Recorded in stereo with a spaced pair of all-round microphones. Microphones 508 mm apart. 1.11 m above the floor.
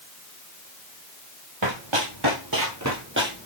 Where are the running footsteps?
60° right (ahead or behind), 2 m; by 3.5 s 15° right (ahead or behind), 2 m.